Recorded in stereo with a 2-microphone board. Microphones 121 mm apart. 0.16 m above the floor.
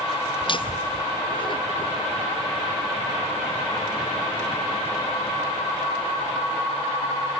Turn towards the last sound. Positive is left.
turn(degrees=35)  # may be behind; listen again after turning